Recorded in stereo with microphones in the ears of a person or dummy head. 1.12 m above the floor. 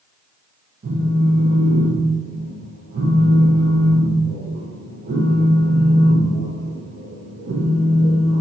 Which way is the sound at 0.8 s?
45° right (ahead or behind).